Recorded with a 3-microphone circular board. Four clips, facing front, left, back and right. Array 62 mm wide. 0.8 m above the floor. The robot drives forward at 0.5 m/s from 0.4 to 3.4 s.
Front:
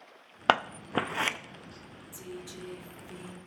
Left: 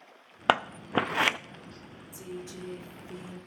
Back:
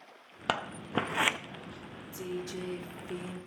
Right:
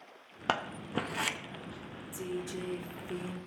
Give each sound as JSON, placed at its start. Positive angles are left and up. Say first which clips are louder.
{"t": 0.5, "sound": "scissors", "louder": "left 7 dB, front 6 dB", "azimuth_deg": 45, "distance_m": 0.6}
{"t": 2.1, "sound": "a woman speaking", "louder": "right 4 dB, back 6 dB", "azimuth_deg": -130, "distance_m": 1.5}